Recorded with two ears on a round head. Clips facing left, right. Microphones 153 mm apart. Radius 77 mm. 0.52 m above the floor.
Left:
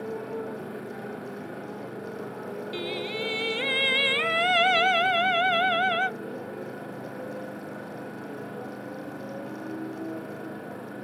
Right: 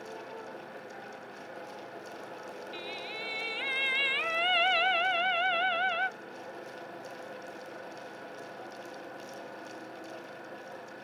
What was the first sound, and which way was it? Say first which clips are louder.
A motorcycle: left 10 dB; 50° left (ahead or behind).